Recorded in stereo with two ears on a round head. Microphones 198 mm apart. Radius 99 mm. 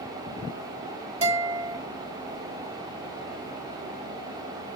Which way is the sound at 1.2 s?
30° right (ahead or behind).